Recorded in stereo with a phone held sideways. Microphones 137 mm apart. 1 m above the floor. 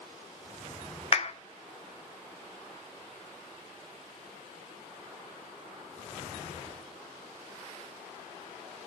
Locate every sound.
1.1 s a clap: 50° left (ahead or behind), 0.8 m